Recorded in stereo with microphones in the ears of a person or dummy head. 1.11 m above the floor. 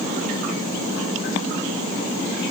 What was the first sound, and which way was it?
Only background noise.